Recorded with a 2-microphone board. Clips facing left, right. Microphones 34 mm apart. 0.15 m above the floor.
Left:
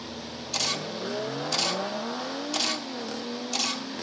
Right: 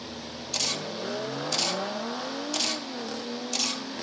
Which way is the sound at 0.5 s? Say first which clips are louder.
Left 1 dB; 5° left (ahead or behind).